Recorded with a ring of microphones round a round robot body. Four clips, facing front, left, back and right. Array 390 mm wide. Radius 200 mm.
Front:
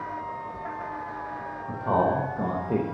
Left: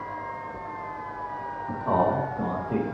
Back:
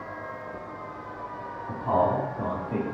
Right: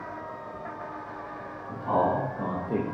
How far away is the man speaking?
About 1.5 m.